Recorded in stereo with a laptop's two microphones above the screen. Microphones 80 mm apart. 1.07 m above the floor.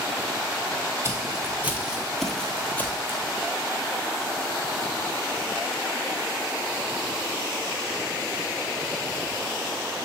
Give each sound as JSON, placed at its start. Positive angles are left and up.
{"t": 1.0, "sound": "footsteps", "side_deg": -35, "distance_m": 1.2}